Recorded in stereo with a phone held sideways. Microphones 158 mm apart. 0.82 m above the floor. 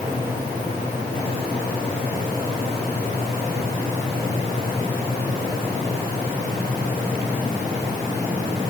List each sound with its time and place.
Only background noise.